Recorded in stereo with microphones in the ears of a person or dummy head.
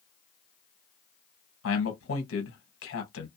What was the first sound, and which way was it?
A man speaking, 65° left (ahead or behind).